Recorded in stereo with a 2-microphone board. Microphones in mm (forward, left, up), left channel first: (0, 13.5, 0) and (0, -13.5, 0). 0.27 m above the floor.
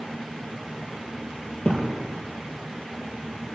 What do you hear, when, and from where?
1.6 s a thud: 50° left (ahead or behind), 2.5 m